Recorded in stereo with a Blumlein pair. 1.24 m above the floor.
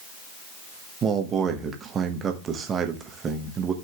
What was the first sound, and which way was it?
A man speaking, 25° right.